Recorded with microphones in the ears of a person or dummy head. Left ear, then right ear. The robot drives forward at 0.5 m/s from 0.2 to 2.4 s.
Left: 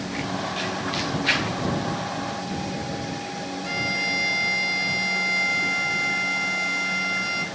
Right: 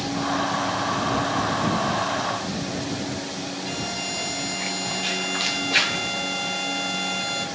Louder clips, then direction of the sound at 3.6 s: Left 7 dB; 55° left (ahead or behind).